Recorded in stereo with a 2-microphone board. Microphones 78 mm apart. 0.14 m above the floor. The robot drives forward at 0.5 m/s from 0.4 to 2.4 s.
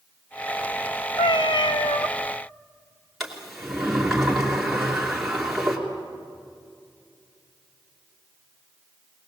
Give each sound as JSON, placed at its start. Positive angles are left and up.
{"t": 1.2, "sound": "a cat meowing", "side_deg": 65, "distance_m": 0.8}
{"t": 3.2, "sound": "a sliding door", "side_deg": 0, "distance_m": 3.0}